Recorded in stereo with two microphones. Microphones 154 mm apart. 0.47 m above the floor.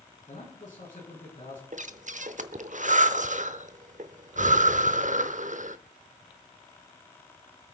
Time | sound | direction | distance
0.3 | a man speaking | 60° left (ahead or behind) | 6 m
1.7 | breathing | 55° right (ahead or behind) | 0.8 m